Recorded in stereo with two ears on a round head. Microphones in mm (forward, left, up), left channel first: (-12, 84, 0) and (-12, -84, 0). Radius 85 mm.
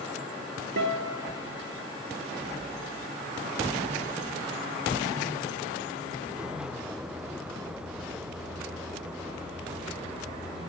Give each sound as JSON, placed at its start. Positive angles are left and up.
{"t": 0.8, "sound": "a guitar", "side_deg": -65, "distance_m": 0.8}